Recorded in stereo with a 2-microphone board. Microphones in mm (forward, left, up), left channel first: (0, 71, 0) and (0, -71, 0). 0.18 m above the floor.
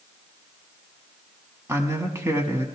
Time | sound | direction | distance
1.7 | a man speaking | 20° right (ahead or behind) | 1.1 m